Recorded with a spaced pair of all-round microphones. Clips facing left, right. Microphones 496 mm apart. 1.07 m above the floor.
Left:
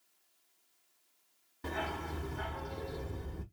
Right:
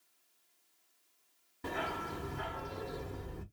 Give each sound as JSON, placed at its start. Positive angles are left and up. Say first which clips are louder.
{"t": 1.6, "sound": "a dog barking", "louder": "even", "side_deg": 0, "distance_m": 0.8}